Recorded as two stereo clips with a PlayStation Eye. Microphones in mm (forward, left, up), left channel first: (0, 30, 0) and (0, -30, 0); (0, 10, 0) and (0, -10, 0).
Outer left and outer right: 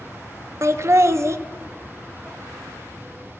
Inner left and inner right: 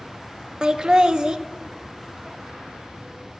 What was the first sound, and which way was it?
Laughter, 50° right (ahead or behind).